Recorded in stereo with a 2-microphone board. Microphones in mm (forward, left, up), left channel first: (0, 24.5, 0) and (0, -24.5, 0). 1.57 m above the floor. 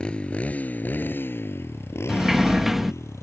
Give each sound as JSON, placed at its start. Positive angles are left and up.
{"t": 0.0, "sound": "a motorcycle", "side_deg": 20}
{"t": 2.1, "sound": "a sliding door", "side_deg": -5}